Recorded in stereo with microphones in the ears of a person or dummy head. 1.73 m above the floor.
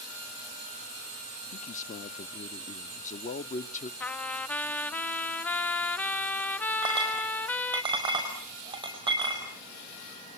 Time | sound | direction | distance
1.5 | a man speaking | 50° left (ahead or behind) | 0.8 m
4.0 | a trumpet | centre (ahead or behind) | 0.6 m
6.8 | a clink | 35° right (ahead or behind) | 5 m